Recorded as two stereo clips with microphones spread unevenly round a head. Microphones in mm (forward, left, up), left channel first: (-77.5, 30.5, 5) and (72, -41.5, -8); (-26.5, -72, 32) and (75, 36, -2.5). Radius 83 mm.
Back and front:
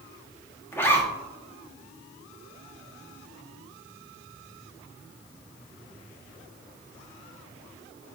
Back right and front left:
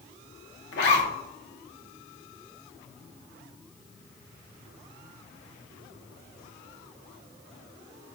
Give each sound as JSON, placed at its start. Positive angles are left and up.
{"t": 0.7, "sound": "a zipper", "azimuth_deg": -125, "distance_m": 1.4}